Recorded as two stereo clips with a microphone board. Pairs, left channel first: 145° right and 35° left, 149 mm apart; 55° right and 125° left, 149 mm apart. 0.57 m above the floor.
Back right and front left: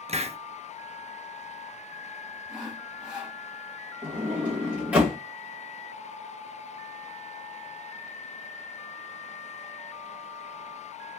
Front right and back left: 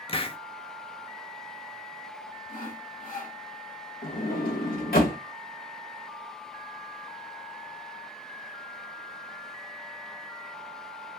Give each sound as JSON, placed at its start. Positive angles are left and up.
{"t": 0.1, "sound": "a hiss", "azimuth_deg": -5, "distance_m": 0.6}
{"t": 2.5, "sound": "sawing", "azimuth_deg": -50, "distance_m": 2.5}
{"t": 4.0, "sound": "a sliding door", "azimuth_deg": -45, "distance_m": 1.7}